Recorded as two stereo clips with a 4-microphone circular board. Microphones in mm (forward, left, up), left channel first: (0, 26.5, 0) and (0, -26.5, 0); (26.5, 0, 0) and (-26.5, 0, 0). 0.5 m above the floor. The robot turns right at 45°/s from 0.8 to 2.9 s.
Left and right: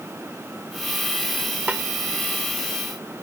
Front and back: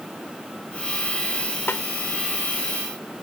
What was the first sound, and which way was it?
A snare drum, 35° right.